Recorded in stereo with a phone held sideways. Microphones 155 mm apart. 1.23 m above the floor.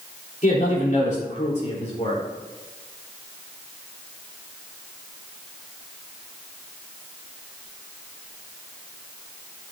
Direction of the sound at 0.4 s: 60° left (ahead or behind).